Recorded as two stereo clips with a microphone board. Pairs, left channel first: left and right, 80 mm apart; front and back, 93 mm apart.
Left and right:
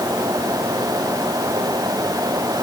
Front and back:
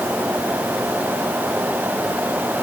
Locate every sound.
Only background noise.